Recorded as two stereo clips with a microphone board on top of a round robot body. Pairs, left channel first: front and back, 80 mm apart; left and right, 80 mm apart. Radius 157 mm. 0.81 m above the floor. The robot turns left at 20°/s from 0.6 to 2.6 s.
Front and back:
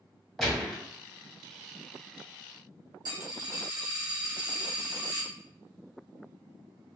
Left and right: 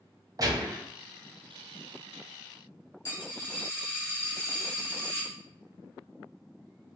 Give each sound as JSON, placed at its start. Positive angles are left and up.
{"t": 0.4, "sound": "a gunshot", "azimuth_deg": -85, "distance_m": 1.1}
{"t": 3.0, "sound": "a dropped coin", "azimuth_deg": 140, "distance_m": 1.6}